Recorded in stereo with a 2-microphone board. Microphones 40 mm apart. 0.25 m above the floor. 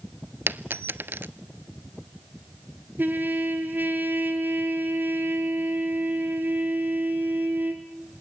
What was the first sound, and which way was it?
A dropped coin, 65° right (ahead or behind).